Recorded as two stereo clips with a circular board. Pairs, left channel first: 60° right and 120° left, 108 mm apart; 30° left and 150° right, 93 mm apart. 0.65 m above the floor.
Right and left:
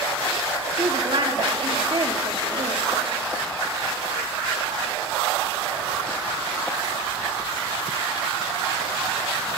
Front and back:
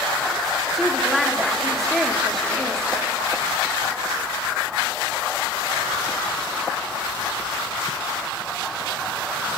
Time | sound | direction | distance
0.7 | a woman speaking | 120° left | 1.6 m